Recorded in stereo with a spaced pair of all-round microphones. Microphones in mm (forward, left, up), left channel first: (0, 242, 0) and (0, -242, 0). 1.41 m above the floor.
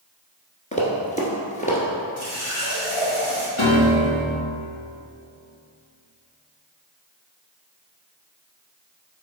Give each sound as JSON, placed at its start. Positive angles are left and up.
{"t": 0.7, "sound": "running footsteps", "side_deg": 15, "distance_m": 1.4}
{"t": 2.2, "sound": "a running tap", "side_deg": 75, "distance_m": 2.5}
{"t": 3.6, "sound": "a piano", "side_deg": 85, "distance_m": 1.5}